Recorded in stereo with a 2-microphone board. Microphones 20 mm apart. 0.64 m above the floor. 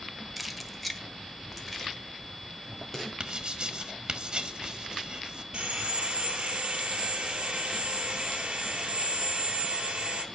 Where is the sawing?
45° right (ahead or behind), 3.5 m.